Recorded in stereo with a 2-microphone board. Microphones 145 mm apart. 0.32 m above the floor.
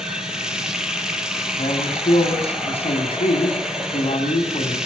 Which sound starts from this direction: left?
A man speaking, at 1.6 s.